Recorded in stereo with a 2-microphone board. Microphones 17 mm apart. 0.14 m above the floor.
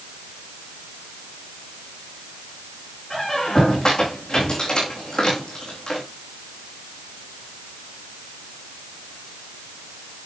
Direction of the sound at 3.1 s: 55° left (ahead or behind).